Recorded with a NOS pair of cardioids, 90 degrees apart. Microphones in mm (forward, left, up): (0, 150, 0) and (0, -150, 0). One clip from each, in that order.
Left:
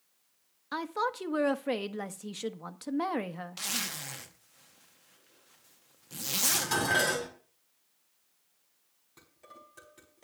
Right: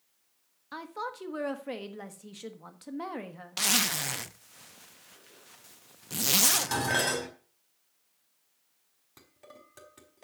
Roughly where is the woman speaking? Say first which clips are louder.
Left 5 dB; ahead left.